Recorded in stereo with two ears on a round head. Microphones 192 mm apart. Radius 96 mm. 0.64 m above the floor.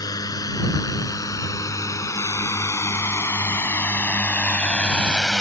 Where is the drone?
20° left (ahead or behind); by 5.4 s 5° left (ahead or behind).